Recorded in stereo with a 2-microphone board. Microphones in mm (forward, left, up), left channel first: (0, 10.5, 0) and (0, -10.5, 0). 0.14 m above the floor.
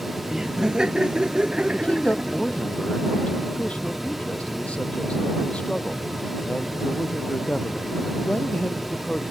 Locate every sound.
0.3 s laughter: 35° right (ahead or behind); by 2.7 s 50° right (ahead or behind)
1.7 s a man speaking: 70° left (ahead or behind)